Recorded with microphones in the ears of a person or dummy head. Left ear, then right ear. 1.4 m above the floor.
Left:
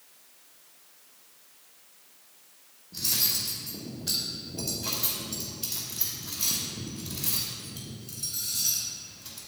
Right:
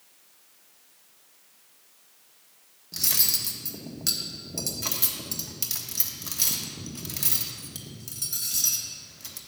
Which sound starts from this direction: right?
Cutlery clinking, at 2.9 s.